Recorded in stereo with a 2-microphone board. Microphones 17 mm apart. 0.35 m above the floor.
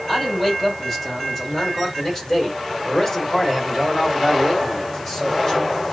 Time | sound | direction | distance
0.1 | a man speaking | 10° left (ahead or behind) | 2.5 m